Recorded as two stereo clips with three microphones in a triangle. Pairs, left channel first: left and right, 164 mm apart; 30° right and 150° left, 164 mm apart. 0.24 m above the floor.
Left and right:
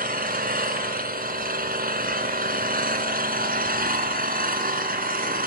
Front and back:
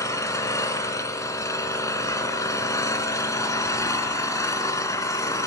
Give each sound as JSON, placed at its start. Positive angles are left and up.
{"t": 0.0, "sound": "an engine running", "azimuth_deg": -100, "distance_m": 2.0}